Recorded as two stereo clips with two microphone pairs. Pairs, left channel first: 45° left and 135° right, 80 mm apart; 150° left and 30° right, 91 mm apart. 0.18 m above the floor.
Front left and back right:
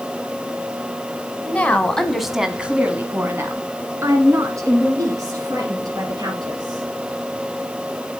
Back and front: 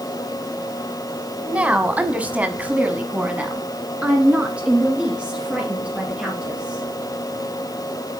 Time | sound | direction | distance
1.4 | a woman speaking | 25° left | 1.0 m